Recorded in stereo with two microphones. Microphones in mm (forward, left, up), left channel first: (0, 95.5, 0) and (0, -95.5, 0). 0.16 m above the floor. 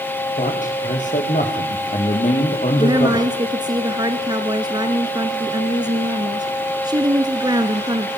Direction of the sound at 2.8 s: 20° right (ahead or behind).